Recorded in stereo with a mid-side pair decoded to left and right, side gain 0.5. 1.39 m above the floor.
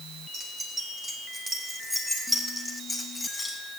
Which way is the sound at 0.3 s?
30° right.